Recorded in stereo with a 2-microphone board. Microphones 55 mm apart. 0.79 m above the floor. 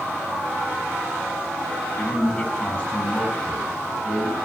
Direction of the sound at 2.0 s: 25° left (ahead or behind).